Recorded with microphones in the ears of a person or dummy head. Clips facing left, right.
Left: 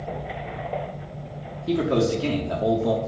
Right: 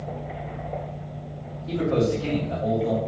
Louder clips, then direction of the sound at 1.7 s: Left 1 dB; 70° left (ahead or behind).